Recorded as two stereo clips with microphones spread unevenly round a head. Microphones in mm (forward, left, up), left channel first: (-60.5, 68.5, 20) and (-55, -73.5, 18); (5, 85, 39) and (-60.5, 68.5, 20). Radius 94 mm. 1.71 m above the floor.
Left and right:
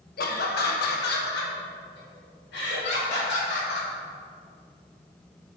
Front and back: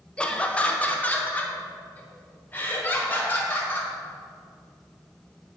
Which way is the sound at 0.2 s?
80° left.